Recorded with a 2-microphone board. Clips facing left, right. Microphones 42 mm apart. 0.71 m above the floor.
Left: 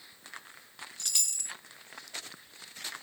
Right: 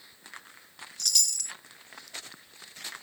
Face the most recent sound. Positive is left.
turn(degrees=25)  # may be behind; listen again after turning